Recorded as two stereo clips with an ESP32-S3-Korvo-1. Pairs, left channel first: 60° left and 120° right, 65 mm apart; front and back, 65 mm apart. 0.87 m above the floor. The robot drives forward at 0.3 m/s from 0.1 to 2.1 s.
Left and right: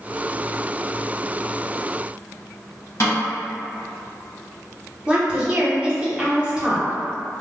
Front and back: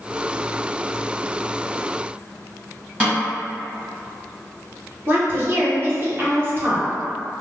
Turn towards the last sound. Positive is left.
turn(degrees=180)